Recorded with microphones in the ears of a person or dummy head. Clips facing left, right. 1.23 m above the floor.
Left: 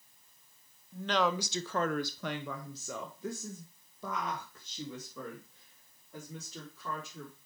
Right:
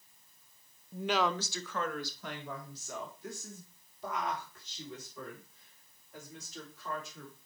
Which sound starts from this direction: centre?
A woman speaking, at 0.9 s.